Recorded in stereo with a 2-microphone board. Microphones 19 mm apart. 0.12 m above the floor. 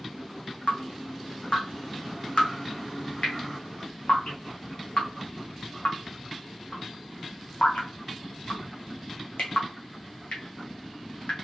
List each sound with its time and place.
0.7 s dripping: 85° left, 1.9 m